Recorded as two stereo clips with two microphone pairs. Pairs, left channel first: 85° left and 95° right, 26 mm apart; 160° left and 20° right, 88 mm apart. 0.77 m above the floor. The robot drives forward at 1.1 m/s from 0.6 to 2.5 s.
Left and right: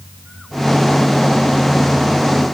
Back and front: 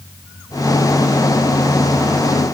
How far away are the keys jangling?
I don't hear keys jangling.